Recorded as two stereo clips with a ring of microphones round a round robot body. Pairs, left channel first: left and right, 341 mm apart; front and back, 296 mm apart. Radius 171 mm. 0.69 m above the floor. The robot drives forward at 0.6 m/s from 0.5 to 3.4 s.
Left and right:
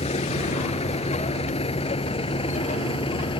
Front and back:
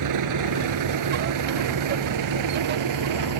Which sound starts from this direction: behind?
A vehicle, at 0.0 s.